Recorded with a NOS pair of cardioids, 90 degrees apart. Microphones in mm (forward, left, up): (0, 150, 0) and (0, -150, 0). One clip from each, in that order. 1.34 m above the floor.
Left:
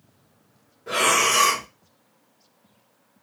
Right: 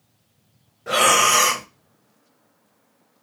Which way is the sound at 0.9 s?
40° right.